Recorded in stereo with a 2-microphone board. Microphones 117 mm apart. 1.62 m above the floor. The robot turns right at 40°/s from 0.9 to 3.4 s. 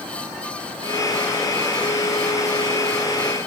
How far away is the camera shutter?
No camera shutter in this recording.